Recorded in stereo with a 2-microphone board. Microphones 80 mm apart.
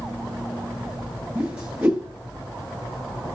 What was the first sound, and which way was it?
A whoosh, 15° right (ahead or behind).